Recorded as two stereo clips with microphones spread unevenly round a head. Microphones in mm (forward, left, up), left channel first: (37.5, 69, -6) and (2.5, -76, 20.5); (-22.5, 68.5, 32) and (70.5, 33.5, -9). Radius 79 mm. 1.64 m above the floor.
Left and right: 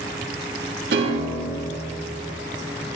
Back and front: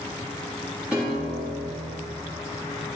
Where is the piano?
110° right, 2.5 m.